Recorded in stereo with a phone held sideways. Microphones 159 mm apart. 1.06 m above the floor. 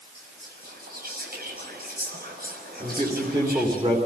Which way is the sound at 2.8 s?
30° right (ahead or behind).